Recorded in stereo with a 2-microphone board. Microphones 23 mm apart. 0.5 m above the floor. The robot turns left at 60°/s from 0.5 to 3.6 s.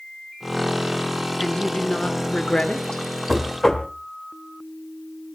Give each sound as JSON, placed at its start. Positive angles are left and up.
{"t": 1.4, "sound": "a woman speaking", "azimuth_deg": 135, "distance_m": 1.7}
{"t": 3.3, "sound": "knocking", "side_deg": 5, "distance_m": 1.8}